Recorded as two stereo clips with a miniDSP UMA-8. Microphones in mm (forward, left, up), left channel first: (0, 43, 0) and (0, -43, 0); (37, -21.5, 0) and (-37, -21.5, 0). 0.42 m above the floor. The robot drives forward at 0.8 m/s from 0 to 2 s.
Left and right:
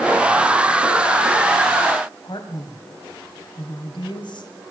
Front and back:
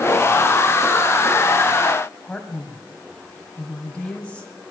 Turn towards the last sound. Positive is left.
turn(degrees=75)